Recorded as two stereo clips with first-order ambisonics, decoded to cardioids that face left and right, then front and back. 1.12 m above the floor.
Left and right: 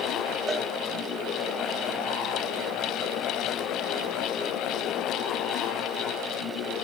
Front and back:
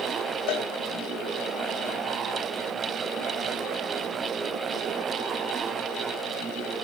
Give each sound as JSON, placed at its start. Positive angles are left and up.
{"t": 0.5, "sound": "a cowbell", "azimuth_deg": -10, "distance_m": 0.6}